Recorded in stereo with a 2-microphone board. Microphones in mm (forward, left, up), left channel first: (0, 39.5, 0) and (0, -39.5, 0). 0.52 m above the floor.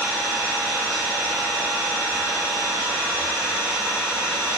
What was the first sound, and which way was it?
An engine running, 15° right (ahead or behind).